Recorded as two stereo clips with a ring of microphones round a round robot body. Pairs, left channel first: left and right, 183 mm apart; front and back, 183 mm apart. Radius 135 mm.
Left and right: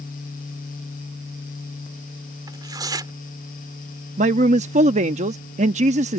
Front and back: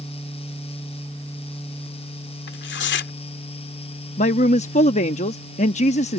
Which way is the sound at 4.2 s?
45° right.